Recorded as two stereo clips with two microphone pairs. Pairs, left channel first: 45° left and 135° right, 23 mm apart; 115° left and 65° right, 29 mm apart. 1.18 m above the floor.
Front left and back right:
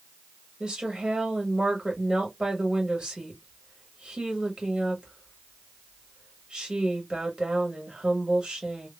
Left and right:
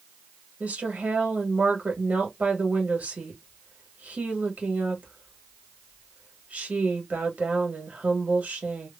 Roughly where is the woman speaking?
Right.